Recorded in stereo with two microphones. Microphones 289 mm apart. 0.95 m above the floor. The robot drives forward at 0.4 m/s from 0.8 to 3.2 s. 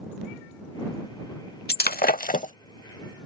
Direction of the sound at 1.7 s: 30° left (ahead or behind).